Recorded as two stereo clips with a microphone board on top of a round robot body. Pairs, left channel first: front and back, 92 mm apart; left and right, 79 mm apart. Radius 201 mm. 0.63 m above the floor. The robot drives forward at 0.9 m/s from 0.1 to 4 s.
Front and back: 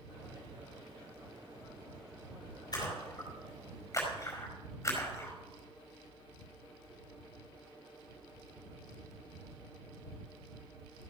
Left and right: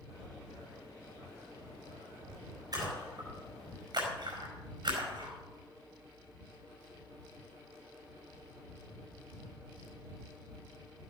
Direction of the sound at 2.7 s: 50° right.